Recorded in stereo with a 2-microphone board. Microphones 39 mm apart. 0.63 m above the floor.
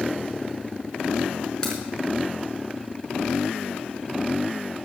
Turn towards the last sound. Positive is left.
turn(degrees=20)  # may be behind; listen again after turning